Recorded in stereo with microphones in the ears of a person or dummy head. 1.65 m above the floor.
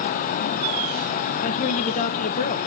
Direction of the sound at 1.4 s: 40° left (ahead or behind).